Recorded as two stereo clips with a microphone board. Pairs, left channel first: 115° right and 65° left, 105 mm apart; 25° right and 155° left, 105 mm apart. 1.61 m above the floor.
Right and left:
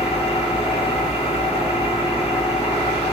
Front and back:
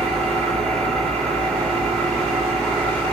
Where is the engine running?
105° right, 3 m.